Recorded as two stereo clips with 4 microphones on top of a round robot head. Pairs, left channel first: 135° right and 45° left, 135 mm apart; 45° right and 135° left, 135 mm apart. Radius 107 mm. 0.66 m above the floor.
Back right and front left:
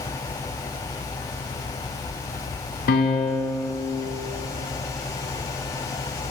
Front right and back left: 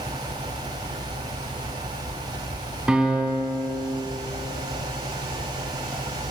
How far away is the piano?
About 1.0 m.